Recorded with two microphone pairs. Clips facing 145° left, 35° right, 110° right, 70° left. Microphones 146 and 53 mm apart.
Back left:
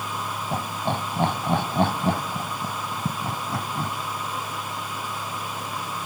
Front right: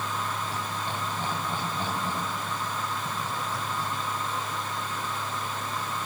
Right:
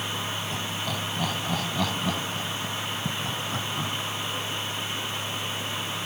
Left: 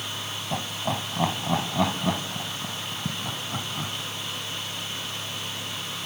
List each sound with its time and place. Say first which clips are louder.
0.5 s laughter: back left 6 dB, left 2 dB; 125° left, 2.5 m; by 3.9 s 160° left, 3 m